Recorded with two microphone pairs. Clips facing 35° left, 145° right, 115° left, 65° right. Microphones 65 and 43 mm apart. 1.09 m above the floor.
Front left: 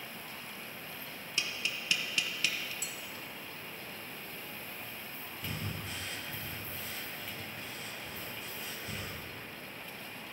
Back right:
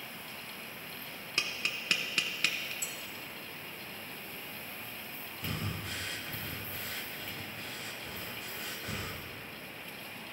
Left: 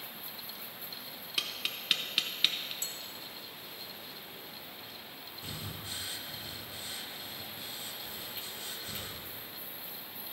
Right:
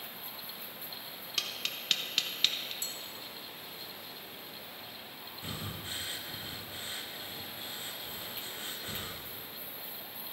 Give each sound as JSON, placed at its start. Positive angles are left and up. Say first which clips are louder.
{"t": 1.4, "sound": "tapping", "louder": "back right 1 dB, left 1 dB", "azimuth_deg": -170, "distance_m": 0.6}
{"t": 2.8, "sound": "dishes clattering", "louder": "even, even", "azimuth_deg": 160, "distance_m": 1.5}
{"t": 5.4, "sound": "breathing", "louder": "back right 2 dB, right 2 dB", "azimuth_deg": -120, "distance_m": 0.8}